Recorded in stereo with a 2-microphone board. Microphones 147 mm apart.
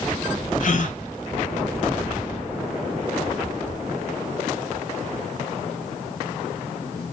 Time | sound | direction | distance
0.6 | a gasp | 60° left (ahead or behind) | 0.6 m